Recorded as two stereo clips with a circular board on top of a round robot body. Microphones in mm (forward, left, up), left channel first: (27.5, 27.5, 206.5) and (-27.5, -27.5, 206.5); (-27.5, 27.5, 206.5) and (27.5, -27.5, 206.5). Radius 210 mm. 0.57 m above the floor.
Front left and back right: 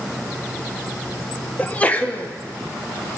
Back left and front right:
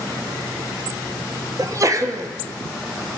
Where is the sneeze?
20° right, 1.6 m.